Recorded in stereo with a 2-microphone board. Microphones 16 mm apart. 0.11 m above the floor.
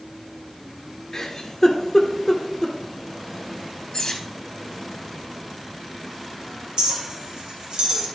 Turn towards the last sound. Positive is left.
turn(degrees=-65)  # may be behind; listen again after turning